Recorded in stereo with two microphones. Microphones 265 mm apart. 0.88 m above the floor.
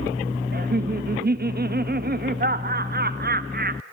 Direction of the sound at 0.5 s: 40° right (ahead or behind).